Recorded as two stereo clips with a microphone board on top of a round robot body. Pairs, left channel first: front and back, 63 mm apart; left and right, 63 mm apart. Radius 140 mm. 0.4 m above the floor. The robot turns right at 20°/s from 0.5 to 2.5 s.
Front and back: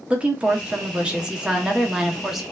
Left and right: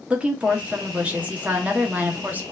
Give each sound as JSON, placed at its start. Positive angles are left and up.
{"t": 0.1, "sound": "a woman speaking", "azimuth_deg": -135, "distance_m": 0.9}